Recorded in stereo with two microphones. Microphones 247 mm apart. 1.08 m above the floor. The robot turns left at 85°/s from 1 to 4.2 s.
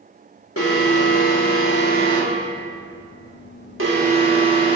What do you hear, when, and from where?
0.6 s an alarm: 115° left, 1.4 m; by 4.8 s 160° right, 1.4 m